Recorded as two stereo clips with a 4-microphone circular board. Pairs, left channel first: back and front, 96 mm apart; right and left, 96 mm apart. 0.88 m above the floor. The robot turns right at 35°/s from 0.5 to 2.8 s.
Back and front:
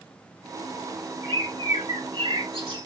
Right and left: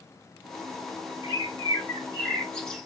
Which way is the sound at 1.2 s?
55° right.